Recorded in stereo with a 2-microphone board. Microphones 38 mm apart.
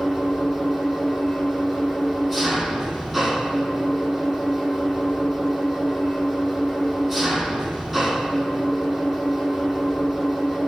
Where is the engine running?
5° left (ahead or behind), 8 m.